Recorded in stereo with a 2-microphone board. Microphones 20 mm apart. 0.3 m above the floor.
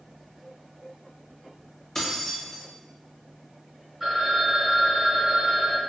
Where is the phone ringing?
15° right (ahead or behind), 1.6 m.